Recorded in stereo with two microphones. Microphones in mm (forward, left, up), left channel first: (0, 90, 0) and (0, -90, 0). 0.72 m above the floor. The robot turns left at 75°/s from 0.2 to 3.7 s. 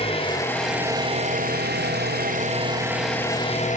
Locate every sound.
0.0 s an engine running: 35° left, 4 m; by 3.8 s 130° left, 4 m